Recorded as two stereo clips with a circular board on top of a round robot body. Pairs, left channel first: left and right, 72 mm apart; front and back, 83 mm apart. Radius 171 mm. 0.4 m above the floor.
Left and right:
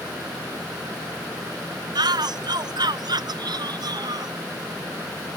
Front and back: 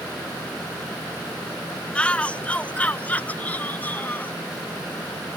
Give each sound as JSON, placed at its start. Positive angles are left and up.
{"t": 1.9, "sound": "a shout", "azimuth_deg": -75}